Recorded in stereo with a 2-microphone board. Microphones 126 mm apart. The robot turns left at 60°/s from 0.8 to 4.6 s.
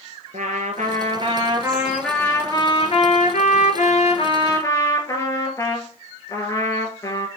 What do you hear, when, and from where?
0.3 s a trumpet: 110° right, 1.2 m; by 7.3 s 25° left, 1.2 m